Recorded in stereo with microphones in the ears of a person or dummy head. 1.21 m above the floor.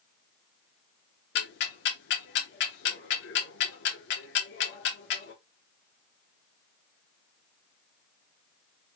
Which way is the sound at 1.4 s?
55° left (ahead or behind).